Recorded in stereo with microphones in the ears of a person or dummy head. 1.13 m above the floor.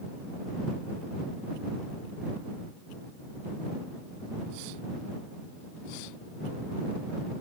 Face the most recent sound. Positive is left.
No sound to turn to.